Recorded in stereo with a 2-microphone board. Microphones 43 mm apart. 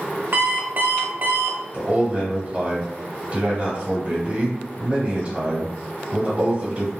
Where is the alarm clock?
55° right (ahead or behind), 0.7 m.